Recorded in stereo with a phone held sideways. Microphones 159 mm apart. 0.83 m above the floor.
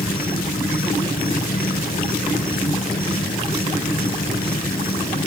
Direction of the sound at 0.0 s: 65° left (ahead or behind).